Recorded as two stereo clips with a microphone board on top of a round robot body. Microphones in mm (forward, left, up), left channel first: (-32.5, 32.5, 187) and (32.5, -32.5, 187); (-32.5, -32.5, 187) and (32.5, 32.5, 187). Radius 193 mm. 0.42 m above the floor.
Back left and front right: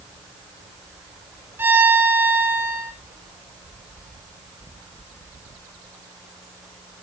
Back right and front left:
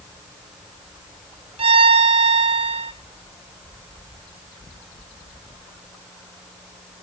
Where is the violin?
25° left, 0.6 m.